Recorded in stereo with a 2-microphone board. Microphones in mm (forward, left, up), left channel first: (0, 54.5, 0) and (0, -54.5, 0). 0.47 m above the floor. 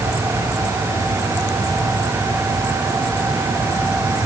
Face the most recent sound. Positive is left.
No sound to turn to.